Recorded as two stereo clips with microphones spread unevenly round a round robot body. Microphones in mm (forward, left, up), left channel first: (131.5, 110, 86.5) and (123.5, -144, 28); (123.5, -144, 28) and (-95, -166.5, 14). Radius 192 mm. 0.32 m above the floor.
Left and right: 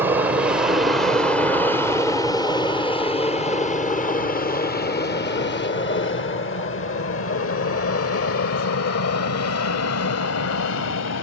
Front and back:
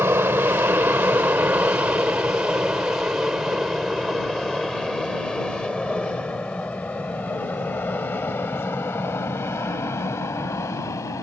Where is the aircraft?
115° right; by 11.2 s 85° left.